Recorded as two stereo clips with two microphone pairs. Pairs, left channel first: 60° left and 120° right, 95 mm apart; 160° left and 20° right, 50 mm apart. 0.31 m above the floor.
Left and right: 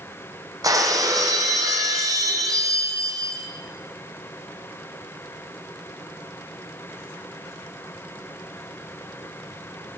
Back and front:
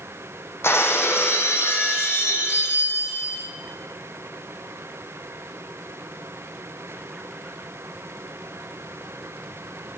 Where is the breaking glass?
170° right, 1.2 m.